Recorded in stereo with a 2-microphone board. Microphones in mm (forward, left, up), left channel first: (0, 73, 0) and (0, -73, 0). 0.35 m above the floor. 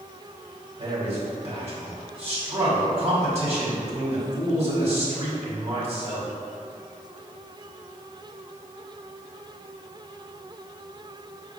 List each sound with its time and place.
0.8 s a man speaking: 45° right (ahead or behind), 1.7 m